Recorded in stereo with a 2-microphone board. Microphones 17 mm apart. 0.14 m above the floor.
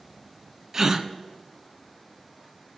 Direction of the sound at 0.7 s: 35° right (ahead or behind).